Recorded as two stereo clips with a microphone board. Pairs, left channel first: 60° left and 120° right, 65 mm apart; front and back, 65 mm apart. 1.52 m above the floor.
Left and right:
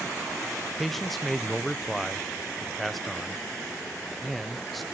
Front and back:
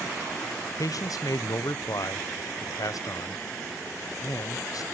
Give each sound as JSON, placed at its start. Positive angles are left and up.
{"t": 0.8, "sound": "a man speaking", "azimuth_deg": -30, "distance_m": 0.8}